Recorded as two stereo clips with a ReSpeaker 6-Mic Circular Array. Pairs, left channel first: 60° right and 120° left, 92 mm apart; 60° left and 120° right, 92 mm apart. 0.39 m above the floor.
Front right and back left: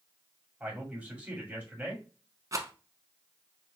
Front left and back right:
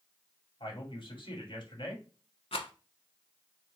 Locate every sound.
0.6 s a man speaking: 50° left, 2 m
2.5 s a rattle: 70° left, 0.7 m